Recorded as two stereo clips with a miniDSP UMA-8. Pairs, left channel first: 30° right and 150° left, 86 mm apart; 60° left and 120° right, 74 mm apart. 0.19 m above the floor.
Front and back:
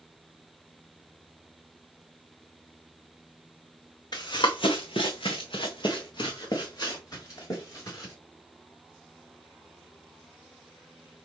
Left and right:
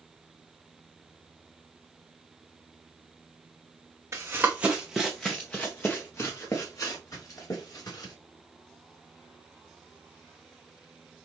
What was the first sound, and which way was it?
Running footsteps, 70° right.